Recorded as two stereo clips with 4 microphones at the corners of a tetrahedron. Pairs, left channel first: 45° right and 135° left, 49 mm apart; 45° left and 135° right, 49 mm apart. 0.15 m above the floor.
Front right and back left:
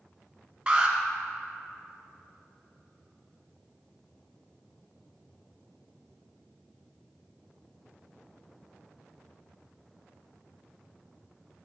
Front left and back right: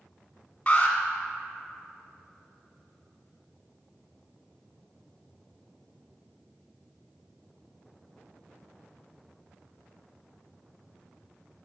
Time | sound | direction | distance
0.7 | an alarm | 90° left | 0.9 m